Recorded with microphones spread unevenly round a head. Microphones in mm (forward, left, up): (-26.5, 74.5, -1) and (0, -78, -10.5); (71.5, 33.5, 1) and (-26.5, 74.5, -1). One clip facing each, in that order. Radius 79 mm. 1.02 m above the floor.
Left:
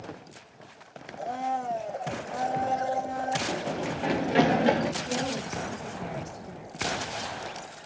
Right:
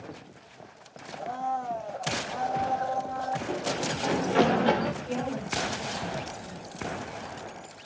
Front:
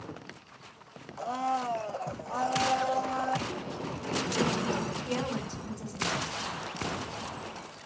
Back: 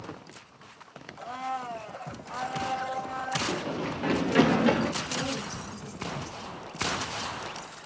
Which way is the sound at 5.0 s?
10° left.